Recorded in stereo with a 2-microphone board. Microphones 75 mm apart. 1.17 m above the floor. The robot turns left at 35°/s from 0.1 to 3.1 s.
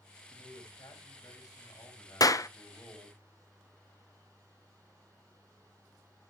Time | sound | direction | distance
0.3 | a man speaking | 100° left | 6.5 m
2.2 | a clap | 55° left (ahead or behind) | 0.6 m